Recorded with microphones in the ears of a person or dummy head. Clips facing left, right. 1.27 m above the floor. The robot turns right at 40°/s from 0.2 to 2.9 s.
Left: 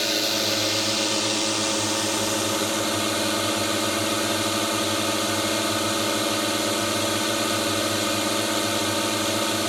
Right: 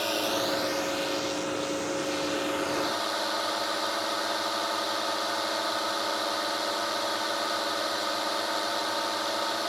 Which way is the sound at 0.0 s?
30° left.